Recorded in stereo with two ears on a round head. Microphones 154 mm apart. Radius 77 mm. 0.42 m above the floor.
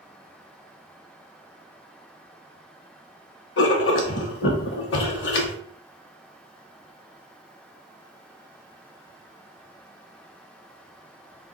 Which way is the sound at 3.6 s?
70° left (ahead or behind).